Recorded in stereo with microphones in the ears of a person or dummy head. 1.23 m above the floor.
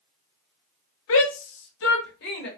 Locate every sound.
1.1 s a shout: 80° left, 0.7 m; by 2.5 s 55° left (ahead or behind), 1.4 m